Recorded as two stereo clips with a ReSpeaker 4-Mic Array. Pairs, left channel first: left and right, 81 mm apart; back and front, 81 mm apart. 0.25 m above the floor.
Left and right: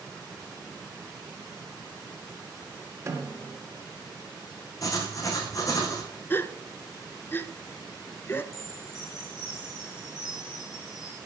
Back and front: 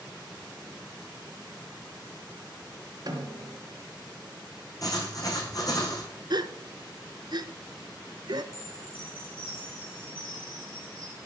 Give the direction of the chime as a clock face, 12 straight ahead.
6 o'clock.